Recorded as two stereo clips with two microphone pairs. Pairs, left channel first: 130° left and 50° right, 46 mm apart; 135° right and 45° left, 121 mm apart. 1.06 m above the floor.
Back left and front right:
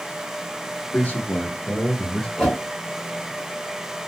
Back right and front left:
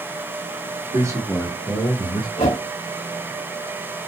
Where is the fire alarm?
I don't hear a fire alarm.